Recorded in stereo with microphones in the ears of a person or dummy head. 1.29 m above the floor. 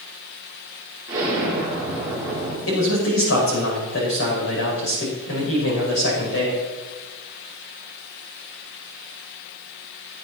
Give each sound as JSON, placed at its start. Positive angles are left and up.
{"t": 1.1, "sound": "an explosion", "side_deg": -10, "distance_m": 4.0}
{"t": 2.7, "sound": "a man speaking", "side_deg": 65, "distance_m": 5.5}